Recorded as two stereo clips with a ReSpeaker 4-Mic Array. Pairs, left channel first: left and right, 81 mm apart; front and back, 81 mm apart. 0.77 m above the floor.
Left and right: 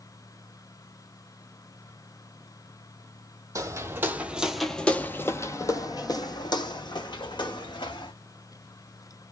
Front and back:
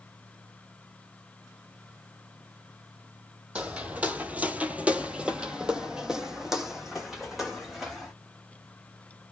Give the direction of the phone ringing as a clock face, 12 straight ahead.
I don't hear a phone ringing.